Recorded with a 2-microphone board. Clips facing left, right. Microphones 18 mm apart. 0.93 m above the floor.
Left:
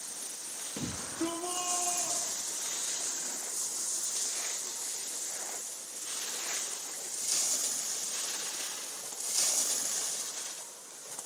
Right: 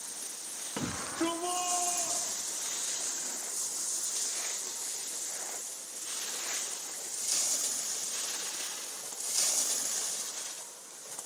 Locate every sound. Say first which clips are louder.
0.8 s a shout: right 3 dB; 70° right (ahead or behind), 1.1 m; by 3.1 s 15° right (ahead or behind), 4 m